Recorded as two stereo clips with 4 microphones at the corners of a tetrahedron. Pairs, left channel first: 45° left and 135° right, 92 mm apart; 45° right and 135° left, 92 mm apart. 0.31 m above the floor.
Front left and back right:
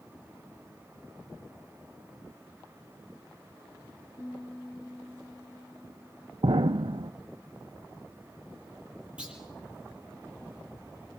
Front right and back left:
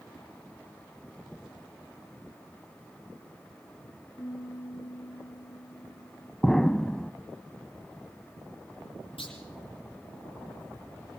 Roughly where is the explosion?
Behind right.